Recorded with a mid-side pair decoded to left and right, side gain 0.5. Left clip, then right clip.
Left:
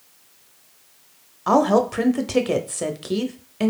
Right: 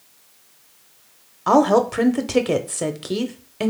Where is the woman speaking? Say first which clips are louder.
Right 2 dB; 10° right, 0.6 m.